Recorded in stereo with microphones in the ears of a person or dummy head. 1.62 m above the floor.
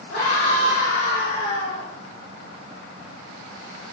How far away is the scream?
About 4.5 m.